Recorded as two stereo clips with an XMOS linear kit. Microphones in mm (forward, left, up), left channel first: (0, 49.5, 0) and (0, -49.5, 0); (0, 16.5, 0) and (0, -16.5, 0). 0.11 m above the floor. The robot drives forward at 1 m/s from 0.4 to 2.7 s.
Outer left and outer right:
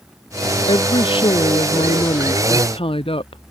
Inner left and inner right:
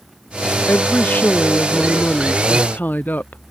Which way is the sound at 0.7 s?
55° left (ahead or behind).